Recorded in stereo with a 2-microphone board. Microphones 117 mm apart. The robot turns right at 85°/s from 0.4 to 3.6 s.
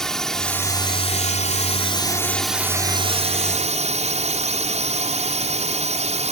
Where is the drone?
5° left; by 6.3 s 85° right.